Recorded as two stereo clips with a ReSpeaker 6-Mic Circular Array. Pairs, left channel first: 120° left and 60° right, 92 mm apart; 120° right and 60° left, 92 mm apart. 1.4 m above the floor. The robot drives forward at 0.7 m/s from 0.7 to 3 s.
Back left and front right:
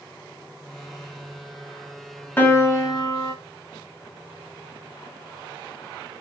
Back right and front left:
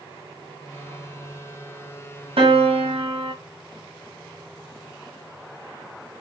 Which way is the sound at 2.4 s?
50° left.